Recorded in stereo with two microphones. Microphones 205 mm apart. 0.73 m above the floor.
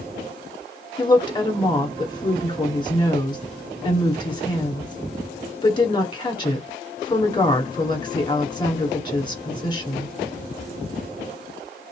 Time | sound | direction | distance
1.0 | a woman speaking | 20° left (ahead or behind) | 1.6 m